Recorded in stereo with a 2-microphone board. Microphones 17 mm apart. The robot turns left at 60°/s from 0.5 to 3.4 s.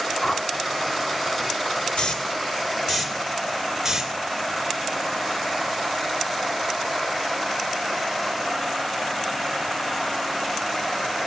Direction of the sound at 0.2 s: 30° left (ahead or behind).